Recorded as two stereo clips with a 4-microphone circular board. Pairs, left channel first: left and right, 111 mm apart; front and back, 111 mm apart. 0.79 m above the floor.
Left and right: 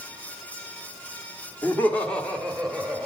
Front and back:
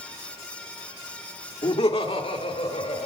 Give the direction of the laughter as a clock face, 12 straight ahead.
11 o'clock.